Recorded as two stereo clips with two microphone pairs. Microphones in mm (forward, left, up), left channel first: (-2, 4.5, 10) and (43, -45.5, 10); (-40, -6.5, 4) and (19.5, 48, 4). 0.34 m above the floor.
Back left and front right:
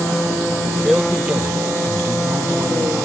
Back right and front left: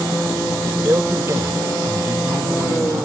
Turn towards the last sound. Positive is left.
turn(degrees=-5)